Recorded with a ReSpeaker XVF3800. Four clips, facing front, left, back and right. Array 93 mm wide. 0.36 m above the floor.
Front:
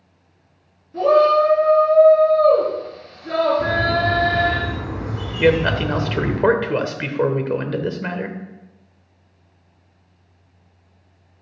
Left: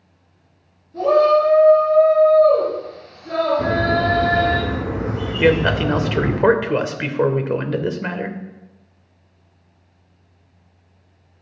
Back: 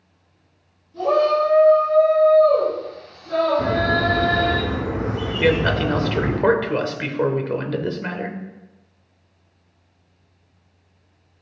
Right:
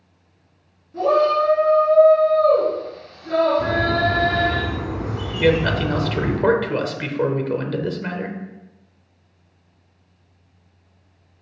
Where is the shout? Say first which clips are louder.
Left 3 dB, front 4 dB; 10° right, 5.5 m.